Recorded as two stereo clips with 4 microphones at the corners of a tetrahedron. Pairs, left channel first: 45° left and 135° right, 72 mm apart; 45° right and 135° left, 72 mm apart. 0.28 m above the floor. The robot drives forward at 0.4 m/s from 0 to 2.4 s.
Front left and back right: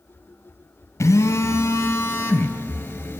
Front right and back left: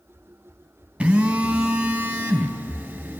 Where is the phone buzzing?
75° left, 2.0 m; by 3.2 s 95° left, 1.9 m.